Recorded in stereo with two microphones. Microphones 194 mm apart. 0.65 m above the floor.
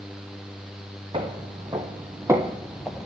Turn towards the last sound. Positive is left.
turn(degrees=5)  # may be behind; listen again after turning